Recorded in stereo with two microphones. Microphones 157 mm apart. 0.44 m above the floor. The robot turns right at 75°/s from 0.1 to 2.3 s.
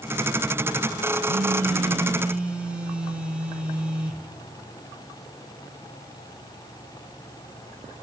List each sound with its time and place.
1.2 s a phone buzzing: 85° right, 2.5 m; by 4.3 s 5° right, 2.5 m